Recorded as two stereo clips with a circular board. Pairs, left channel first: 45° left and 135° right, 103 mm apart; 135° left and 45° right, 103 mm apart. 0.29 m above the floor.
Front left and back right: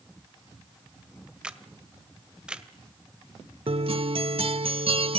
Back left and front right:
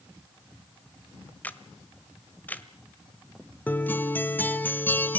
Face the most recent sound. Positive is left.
turn(degrees=-155)